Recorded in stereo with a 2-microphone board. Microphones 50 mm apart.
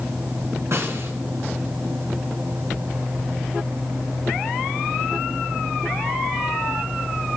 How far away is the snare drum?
About 3.5 m.